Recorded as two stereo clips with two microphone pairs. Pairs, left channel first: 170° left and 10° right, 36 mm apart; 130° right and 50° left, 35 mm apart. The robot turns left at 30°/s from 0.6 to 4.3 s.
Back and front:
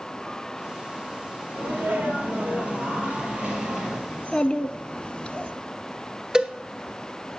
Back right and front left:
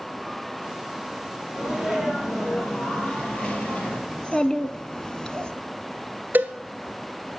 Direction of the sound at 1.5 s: 15° right.